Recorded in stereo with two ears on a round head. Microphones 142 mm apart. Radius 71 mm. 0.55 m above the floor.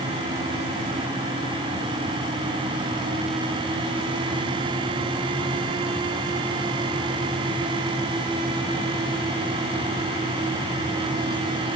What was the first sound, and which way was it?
Only background noise.